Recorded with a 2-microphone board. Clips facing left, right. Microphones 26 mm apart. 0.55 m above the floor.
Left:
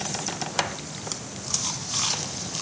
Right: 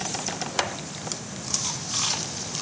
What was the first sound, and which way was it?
Only background noise.